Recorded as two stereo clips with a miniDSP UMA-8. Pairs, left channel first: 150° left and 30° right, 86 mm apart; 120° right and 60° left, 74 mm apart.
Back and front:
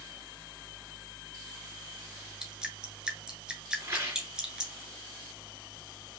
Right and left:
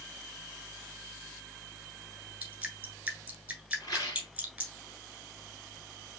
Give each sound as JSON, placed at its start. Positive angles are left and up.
{"t": 2.4, "sound": "dripping", "azimuth_deg": 30, "distance_m": 1.5}
{"t": 3.8, "sound": "a rattle", "azimuth_deg": -90, "distance_m": 2.5}